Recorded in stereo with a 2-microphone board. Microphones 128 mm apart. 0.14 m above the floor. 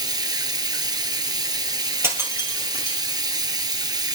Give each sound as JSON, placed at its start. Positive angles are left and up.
{"t": 0.0, "sound": "running water", "side_deg": -30, "distance_m": 0.9}
{"t": 2.0, "sound": "breaking glass", "side_deg": -20, "distance_m": 1.9}